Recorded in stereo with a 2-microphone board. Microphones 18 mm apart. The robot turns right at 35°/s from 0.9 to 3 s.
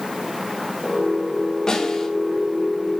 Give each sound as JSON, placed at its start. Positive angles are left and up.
{"t": 1.7, "sound": "a snare drum", "side_deg": 35, "distance_m": 4.5}